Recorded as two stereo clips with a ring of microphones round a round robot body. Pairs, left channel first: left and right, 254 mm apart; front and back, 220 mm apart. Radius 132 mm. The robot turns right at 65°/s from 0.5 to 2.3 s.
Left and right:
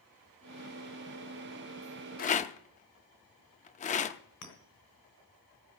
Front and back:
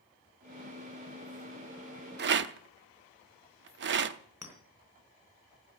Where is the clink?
100° left, 3.5 m.